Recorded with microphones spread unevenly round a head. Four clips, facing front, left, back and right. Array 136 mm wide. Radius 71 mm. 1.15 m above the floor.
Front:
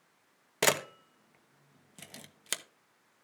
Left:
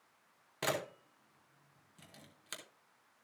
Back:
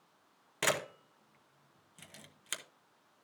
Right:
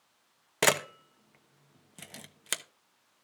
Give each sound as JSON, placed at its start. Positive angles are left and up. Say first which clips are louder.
{"t": 0.6, "sound": "a camera shutter", "louder": "right 9 dB, front 4 dB", "azimuth_deg": -60, "distance_m": 1.0}